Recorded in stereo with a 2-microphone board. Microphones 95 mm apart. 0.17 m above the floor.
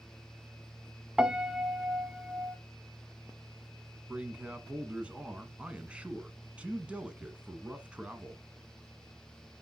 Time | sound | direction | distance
1.2 | a piano | 10° right (ahead or behind) | 0.7 m
4.1 | a man speaking | 15° right (ahead or behind) | 1.3 m